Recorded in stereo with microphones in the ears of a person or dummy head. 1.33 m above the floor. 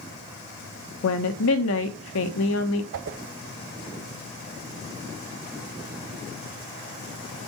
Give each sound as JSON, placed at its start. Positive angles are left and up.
{"t": 1.0, "sound": "a woman speaking", "side_deg": 80, "distance_m": 1.2}
{"t": 2.9, "sound": "a whoosh", "side_deg": -55, "distance_m": 0.7}